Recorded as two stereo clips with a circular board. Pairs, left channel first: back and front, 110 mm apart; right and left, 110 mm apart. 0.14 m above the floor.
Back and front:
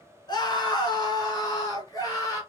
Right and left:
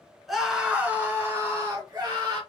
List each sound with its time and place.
0.3 s a scream: straight behind, 1.4 m; by 2.4 s 135° left, 1.9 m